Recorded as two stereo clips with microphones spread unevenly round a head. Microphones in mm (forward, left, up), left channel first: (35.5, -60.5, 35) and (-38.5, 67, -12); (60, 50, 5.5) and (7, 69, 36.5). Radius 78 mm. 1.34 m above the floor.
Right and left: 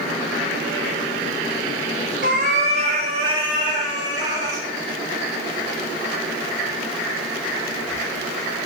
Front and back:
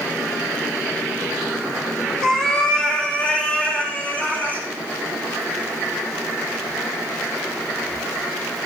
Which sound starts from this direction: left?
A cat meowing, at 2.2 s.